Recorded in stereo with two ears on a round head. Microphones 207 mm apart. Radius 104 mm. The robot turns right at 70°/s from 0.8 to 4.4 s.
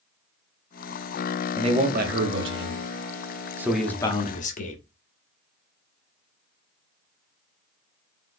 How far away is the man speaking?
About 0.9 m.